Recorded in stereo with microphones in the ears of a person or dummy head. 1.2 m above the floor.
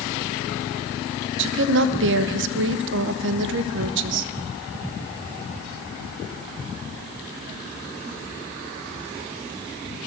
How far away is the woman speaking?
About 0.7 m.